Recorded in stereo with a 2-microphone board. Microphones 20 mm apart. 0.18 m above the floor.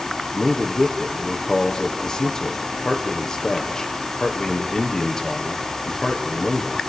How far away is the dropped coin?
No dropped coin in this recording.